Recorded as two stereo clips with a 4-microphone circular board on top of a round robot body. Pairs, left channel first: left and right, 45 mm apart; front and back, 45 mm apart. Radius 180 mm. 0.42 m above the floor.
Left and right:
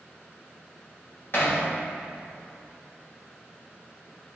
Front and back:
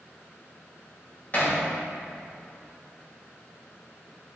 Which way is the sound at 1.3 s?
55° left.